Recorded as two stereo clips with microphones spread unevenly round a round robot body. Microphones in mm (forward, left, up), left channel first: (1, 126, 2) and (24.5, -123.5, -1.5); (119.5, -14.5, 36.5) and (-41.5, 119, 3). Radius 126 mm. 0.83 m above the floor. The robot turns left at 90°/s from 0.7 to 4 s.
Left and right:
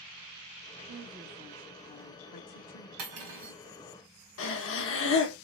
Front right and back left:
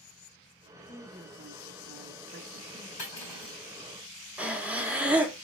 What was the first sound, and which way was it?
A woman speaking, 115° right.